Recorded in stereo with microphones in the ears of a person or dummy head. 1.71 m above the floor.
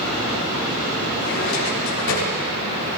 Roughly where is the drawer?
Left.